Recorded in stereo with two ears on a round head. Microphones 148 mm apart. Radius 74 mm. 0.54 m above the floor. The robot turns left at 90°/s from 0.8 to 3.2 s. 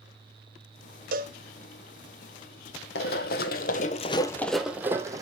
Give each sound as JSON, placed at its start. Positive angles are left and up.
{"t": 1.1, "sound": "a cowbell", "side_deg": -55, "distance_m": 0.9}
{"t": 3.0, "sound": "running footsteps", "side_deg": 70, "distance_m": 1.3}